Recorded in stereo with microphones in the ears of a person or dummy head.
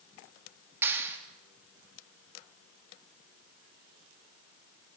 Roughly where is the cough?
No cough in this recording.